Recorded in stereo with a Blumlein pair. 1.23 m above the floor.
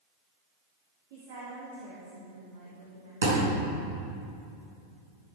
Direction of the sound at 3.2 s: 60° right.